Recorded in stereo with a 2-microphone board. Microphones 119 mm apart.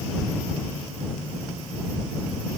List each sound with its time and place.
Only background noise.